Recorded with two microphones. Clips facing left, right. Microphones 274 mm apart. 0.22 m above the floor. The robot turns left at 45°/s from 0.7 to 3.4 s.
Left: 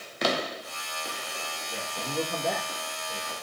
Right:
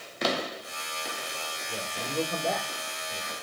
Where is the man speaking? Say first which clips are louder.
Even; 155° right, 6 m; by 3.3 s 135° left, 6 m.